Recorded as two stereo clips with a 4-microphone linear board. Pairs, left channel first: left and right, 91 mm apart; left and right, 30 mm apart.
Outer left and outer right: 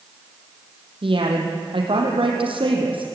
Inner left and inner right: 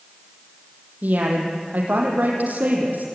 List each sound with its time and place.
1.0 s a woman speaking: 75° right (ahead or behind), 5 m